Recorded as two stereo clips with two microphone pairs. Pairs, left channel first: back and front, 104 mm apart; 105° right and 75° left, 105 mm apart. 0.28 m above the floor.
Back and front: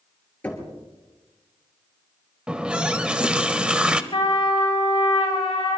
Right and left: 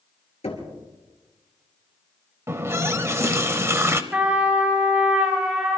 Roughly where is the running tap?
Ahead left.